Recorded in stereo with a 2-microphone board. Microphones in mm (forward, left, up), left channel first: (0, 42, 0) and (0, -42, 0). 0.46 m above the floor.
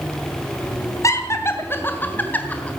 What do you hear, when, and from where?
1.0 s laughter: 40° left (ahead or behind), 2.5 m; by 2.7 s 15° left (ahead or behind), 3.5 m